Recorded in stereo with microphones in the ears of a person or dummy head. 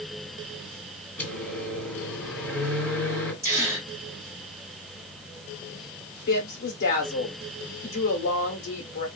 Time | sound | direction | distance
1.2 | a microwave | 15° left (ahead or behind) | 2.0 m
3.4 | a gasp | 10° right (ahead or behind) | 1.2 m
6.3 | a woman speaking | 55° left (ahead or behind) | 1.1 m